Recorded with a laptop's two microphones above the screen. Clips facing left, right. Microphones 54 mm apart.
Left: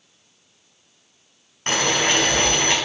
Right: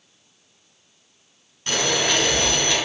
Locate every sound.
1.7 s boiling: 45° left (ahead or behind), 5.5 m